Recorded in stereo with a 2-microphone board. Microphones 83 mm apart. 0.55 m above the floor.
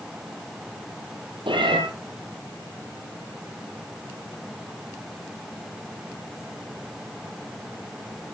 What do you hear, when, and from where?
1.5 s a cat meowing: 85° right, 4 m